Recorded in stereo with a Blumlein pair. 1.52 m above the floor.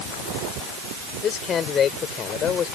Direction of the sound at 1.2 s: 25° left.